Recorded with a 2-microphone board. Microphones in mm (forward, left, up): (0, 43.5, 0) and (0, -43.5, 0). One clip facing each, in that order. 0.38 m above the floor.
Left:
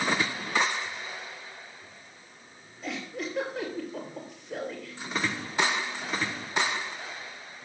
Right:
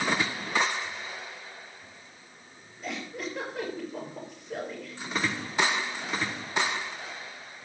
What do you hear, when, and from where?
2.8 s a giggle: centre (ahead or behind), 7.5 m